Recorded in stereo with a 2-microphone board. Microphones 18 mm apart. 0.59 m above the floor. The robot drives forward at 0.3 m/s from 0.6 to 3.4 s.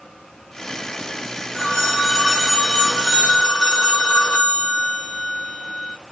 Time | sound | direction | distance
1.5 | a phone ringing | 40° left (ahead or behind) | 1.1 m